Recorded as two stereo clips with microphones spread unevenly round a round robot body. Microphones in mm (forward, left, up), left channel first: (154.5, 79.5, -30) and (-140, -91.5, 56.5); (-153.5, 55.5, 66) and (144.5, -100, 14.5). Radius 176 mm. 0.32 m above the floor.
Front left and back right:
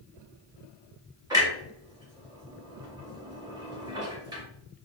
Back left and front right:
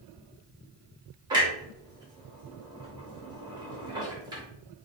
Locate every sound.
1.3 s a clunk: 50° right, 1.1 m